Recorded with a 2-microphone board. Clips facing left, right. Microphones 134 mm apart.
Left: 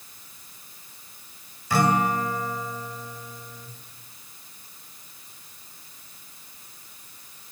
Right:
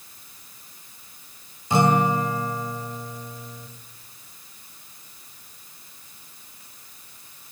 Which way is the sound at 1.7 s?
20° right (ahead or behind).